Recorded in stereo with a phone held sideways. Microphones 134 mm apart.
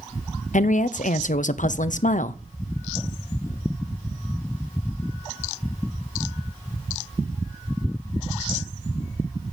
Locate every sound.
0.5 s a woman speaking: 70° left (ahead or behind), 0.6 m